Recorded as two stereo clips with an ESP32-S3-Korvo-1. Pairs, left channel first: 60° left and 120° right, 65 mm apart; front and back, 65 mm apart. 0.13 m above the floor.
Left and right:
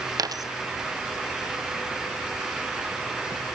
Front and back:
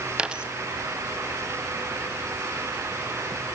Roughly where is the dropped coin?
Right.